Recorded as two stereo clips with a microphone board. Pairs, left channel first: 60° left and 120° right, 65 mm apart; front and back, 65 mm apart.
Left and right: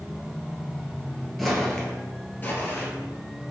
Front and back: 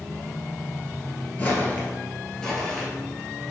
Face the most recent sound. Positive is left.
turn(degrees=85)